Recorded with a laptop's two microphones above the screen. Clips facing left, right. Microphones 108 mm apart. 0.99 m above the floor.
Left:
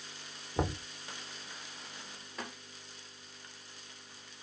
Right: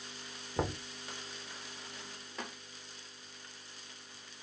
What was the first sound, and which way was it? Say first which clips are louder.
Knocking: left 1 dB; 5° left (ahead or behind).